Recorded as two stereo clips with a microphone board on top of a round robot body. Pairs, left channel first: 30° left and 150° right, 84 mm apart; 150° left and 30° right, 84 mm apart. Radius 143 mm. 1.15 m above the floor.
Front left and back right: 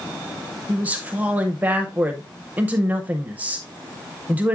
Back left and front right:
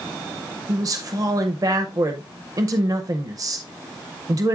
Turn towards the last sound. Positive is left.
turn(degrees=-80)